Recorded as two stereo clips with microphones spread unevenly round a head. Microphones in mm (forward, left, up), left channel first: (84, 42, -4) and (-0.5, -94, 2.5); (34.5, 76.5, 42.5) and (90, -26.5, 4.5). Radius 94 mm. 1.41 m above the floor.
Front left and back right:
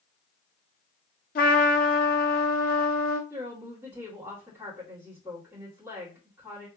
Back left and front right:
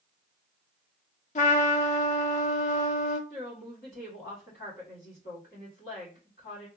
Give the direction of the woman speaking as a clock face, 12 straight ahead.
7 o'clock.